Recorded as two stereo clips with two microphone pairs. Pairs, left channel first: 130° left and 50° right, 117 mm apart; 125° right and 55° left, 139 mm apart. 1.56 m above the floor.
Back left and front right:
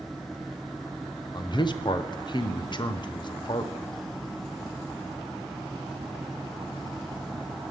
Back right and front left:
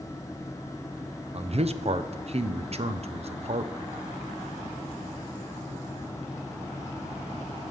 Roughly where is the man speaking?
Left.